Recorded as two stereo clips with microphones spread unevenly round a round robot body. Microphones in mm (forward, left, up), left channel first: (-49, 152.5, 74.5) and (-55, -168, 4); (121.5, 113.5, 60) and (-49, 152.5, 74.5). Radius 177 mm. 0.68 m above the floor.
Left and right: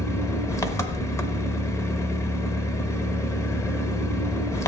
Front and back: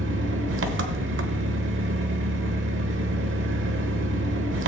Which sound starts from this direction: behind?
An engine running, at 0.0 s.